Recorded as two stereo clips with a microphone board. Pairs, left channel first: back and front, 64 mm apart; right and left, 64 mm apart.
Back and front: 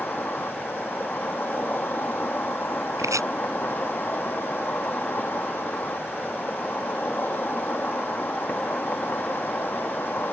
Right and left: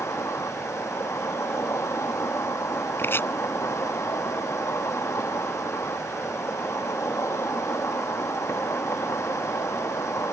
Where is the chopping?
35° right.